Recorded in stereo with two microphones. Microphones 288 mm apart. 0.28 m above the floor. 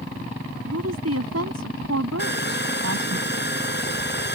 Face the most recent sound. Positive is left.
turn(degrees=35)  # may be behind; listen again after turning